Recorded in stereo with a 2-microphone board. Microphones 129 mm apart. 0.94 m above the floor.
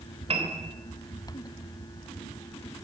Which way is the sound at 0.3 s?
55° right (ahead or behind).